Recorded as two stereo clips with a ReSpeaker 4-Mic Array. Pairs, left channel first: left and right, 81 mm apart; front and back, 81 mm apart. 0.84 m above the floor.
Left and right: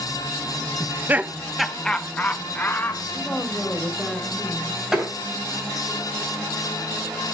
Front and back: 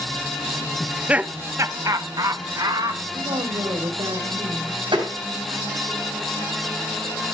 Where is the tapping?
175° right, 6 m.